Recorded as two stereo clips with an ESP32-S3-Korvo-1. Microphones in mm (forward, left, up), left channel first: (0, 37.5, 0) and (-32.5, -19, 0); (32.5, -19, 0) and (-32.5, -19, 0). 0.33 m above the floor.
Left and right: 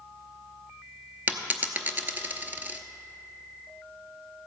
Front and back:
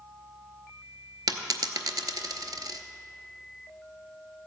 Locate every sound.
1.3 s a dropped coin: straight behind, 0.8 m